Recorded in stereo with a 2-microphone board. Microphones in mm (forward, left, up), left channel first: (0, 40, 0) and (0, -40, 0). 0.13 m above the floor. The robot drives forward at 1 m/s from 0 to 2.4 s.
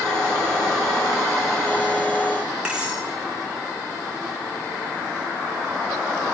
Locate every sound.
2.6 s cutlery clinking: 15° right (ahead or behind), 5.5 m